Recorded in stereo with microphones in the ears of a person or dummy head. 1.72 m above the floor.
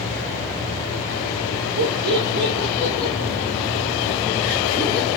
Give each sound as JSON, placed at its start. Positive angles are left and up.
{"t": 1.8, "sound": "laughter", "side_deg": -30, "distance_m": 0.7}